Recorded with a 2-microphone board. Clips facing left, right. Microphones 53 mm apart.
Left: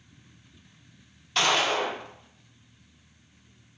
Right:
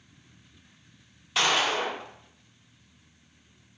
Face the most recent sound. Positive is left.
turn(degrees=-5)  # may be behind; listen again after turning